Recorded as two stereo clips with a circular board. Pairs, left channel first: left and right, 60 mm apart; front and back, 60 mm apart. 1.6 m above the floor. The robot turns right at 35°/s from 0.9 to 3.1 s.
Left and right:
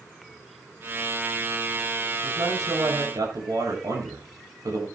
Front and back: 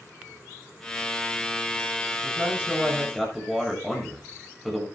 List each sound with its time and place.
2.2 s a man speaking: 120° right, 7.5 m; by 4.9 s 90° right, 7.5 m